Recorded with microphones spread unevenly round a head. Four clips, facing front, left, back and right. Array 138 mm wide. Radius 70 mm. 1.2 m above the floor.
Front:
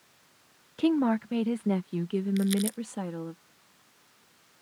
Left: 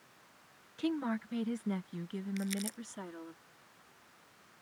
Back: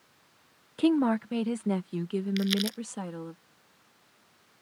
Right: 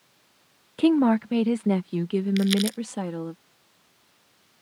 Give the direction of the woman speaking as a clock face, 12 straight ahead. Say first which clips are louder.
Right 15 dB, back 1 dB; 3 o'clock.